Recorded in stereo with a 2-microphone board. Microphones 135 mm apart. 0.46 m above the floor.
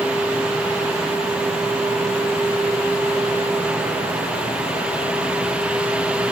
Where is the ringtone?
I don't hear a ringtone.